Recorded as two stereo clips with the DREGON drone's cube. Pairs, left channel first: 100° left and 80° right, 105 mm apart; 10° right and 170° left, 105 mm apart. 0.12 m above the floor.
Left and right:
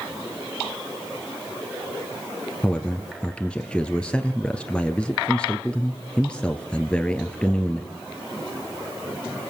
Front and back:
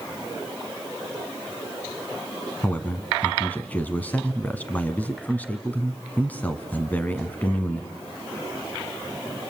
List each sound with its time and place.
2.6 s a man speaking: 35° left, 1.5 m